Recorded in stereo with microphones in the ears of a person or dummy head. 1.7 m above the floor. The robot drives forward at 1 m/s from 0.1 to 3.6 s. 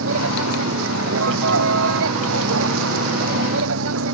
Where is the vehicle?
75° right (ahead or behind); by 4.2 s 80° right.